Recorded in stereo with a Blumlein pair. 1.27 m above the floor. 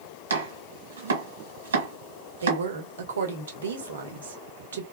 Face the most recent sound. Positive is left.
turn(degrees=-65)